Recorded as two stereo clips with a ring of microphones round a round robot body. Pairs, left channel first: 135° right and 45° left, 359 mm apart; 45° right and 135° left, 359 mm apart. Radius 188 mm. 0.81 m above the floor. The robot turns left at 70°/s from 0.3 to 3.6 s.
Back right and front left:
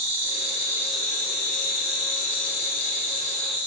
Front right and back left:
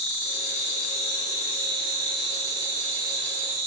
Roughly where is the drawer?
I don't hear a drawer.